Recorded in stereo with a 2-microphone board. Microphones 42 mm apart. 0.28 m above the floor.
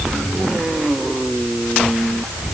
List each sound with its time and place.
Only background noise.